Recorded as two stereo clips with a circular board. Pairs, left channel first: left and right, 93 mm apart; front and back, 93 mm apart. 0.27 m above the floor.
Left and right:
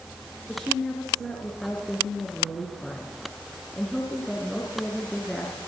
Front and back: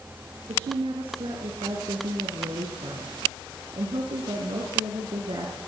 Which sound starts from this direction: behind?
A woman speaking, at 0.5 s.